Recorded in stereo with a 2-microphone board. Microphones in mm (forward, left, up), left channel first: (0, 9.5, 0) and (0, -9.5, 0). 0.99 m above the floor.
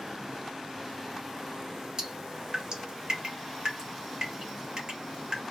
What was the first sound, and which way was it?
Dripping, 40° right (ahead or behind).